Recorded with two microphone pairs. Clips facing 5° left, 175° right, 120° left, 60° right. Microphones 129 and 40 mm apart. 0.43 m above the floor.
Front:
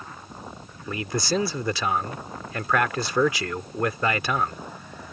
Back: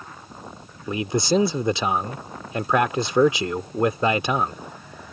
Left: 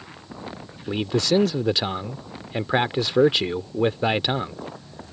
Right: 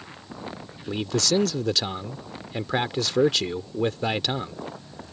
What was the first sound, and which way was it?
A man speaking, 160° left.